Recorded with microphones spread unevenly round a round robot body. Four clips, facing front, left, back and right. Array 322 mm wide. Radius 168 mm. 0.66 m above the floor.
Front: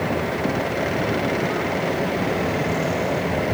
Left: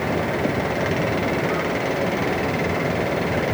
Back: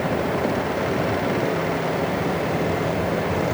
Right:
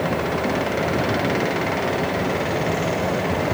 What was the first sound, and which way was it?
Only background noise.